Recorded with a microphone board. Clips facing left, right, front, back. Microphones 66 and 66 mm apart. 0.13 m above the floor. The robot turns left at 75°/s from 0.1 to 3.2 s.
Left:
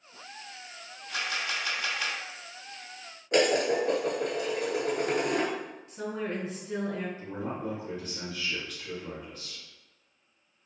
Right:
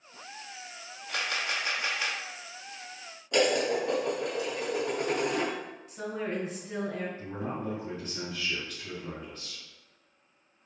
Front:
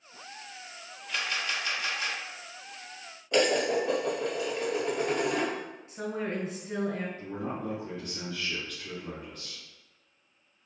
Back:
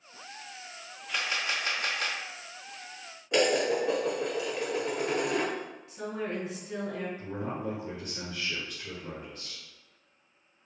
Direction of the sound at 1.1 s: 85° right.